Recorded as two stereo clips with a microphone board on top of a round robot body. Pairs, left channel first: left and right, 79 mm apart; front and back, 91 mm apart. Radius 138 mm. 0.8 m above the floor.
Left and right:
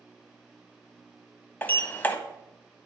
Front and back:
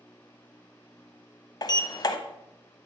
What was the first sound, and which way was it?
A sliding door, 35° left.